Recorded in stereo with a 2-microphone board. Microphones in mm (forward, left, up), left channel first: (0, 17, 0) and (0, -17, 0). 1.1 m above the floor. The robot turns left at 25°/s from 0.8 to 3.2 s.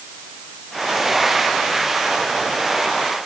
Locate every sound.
Only background noise.